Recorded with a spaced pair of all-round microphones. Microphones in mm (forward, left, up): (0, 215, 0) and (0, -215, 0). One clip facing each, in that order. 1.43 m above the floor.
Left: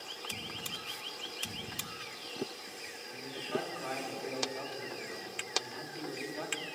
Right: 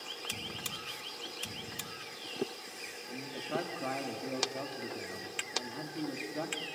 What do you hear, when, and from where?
3.1 s a man speaking: 60° right (ahead or behind), 2.5 m